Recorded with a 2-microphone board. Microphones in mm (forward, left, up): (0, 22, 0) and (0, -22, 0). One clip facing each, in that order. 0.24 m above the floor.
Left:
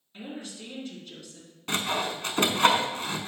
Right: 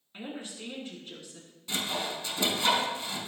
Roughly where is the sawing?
Left.